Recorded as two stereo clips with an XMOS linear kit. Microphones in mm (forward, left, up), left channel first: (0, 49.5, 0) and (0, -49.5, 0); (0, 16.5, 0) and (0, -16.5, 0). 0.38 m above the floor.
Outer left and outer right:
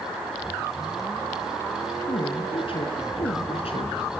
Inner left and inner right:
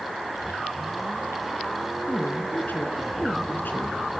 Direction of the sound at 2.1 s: 60° left (ahead or behind).